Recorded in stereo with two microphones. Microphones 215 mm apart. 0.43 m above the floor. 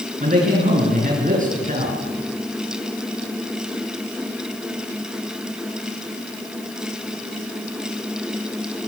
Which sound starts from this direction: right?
A man speaking, at 0.2 s.